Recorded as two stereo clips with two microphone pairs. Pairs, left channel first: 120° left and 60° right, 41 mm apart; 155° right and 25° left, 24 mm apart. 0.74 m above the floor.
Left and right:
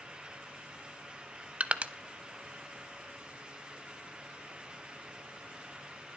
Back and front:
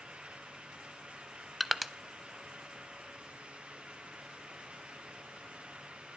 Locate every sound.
1.6 s crushing: 70° right, 0.6 m